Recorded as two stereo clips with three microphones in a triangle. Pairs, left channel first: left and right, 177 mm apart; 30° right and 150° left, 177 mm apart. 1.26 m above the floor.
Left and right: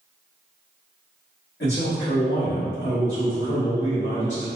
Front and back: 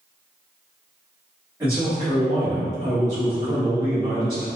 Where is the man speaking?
75° left, 1.6 m.